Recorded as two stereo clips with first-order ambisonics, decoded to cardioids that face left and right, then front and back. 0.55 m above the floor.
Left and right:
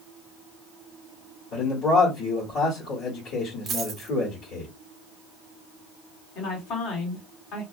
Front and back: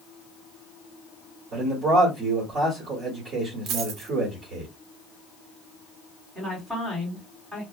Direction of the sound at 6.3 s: 100° left.